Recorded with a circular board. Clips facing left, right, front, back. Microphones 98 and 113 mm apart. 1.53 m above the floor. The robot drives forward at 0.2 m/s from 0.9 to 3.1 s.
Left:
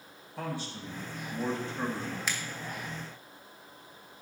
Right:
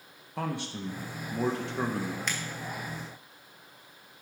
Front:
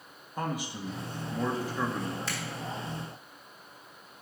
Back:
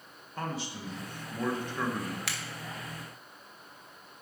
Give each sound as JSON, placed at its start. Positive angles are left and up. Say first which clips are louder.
{"t": 0.4, "sound": "a man speaking", "louder": "right 3 dB, front 3 dB", "azimuth_deg": -75, "distance_m": 1.2}
{"t": 2.3, "sound": "a finger snap", "louder": "even, front 3 dB", "azimuth_deg": 175, "distance_m": 1.2}